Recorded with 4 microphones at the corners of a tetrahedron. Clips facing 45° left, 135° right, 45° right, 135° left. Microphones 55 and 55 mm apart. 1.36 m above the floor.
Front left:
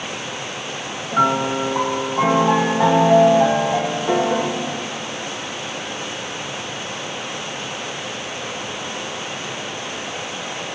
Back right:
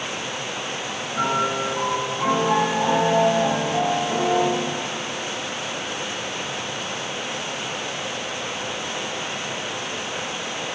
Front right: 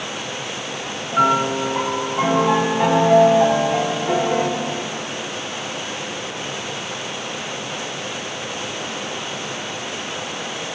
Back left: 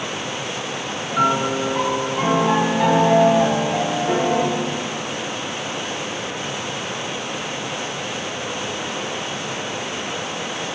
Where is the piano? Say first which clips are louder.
Front left 5 dB, front right 2 dB; 35° left, 0.8 m.